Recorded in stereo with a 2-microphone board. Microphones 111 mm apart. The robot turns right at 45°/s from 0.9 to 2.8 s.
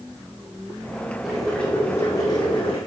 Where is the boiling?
5° right, 4.5 m; by 2.8 s 65° left, 4.5 m.